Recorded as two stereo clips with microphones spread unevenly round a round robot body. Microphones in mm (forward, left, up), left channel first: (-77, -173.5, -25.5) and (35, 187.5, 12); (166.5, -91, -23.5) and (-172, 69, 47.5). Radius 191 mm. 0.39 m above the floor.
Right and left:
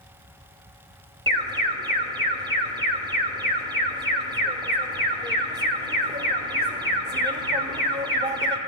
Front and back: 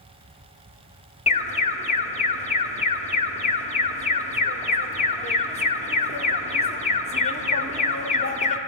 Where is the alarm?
5° right, 1.3 m.